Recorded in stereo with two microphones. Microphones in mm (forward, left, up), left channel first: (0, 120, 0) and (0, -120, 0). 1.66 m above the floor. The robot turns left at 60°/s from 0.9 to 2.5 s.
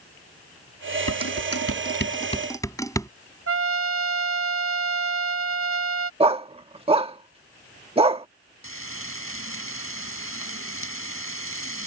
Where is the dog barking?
20° right (ahead or behind).